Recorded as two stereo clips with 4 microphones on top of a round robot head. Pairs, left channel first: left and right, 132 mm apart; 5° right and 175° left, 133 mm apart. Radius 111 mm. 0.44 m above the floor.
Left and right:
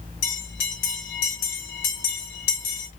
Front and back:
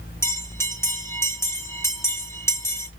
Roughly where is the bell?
Left.